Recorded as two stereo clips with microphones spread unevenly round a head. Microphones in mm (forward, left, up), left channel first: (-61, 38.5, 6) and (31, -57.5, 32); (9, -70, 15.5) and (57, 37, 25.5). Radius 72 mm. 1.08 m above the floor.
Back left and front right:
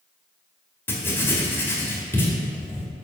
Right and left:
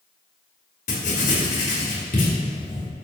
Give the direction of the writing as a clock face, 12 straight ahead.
5 o'clock.